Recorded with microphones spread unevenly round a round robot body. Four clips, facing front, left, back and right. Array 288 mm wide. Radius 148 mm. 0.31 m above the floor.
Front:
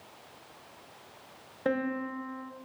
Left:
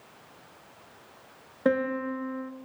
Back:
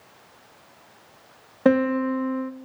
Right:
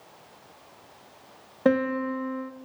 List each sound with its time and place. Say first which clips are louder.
1.6 s a piano: right 3 dB, back 11 dB; 160° right, 0.7 m